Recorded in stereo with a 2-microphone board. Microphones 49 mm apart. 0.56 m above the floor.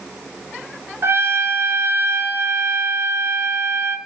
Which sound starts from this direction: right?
A trumpet, at 1.0 s.